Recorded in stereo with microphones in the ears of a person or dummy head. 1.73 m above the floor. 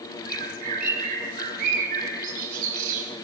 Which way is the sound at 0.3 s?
40° right (ahead or behind).